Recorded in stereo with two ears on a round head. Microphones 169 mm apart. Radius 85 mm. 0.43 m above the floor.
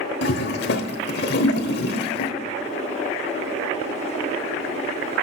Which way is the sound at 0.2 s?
60° left (ahead or behind).